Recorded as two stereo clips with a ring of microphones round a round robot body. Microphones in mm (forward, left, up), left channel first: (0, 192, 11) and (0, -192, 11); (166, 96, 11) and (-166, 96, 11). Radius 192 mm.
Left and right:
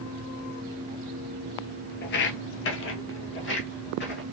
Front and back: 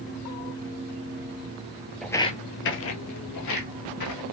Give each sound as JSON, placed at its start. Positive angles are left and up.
{"t": 2.0, "sound": "footsteps", "azimuth_deg": 90, "distance_m": 0.5}